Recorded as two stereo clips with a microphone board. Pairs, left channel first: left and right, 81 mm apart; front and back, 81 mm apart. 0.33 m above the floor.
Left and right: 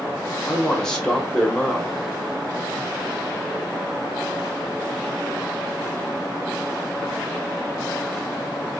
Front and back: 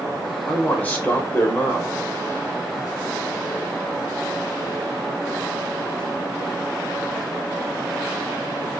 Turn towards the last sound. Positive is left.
turn(degrees=20)